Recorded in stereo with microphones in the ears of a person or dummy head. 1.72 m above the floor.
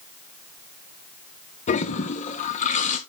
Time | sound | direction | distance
1.7 | a toilet flushing | 40° left (ahead or behind) | 0.7 m